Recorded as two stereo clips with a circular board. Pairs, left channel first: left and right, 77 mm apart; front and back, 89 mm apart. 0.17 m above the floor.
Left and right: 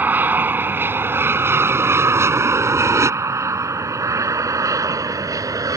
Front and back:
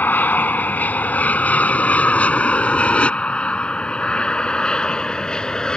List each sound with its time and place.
0.0 s an aircraft: 50° right; by 5.8 s 80° right